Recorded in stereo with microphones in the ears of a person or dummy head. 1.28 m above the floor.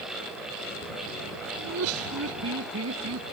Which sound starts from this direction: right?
Laughter, at 1.6 s.